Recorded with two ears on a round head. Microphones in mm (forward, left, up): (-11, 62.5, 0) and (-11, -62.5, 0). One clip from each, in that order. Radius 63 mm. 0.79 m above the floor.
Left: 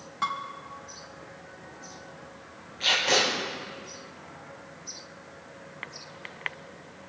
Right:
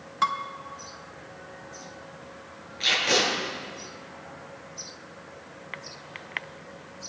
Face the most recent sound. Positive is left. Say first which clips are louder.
# even
turn(degrees=-20)  # may be behind; listen again after turning